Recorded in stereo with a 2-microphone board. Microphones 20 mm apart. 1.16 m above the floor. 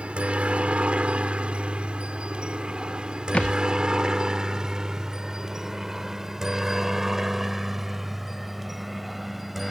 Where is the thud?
75° left (ahead or behind).